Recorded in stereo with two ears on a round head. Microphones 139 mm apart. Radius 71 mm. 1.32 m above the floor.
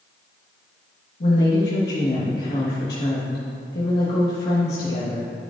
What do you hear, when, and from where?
1.2 s a woman speaking: 65° left (ahead or behind), 1.6 m